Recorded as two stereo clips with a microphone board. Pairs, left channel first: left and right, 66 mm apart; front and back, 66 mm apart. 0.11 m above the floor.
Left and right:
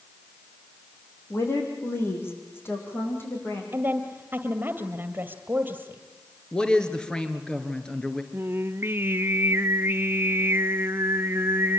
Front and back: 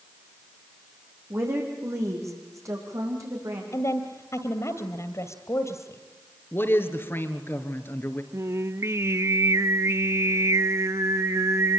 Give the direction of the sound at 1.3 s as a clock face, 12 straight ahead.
7 o'clock.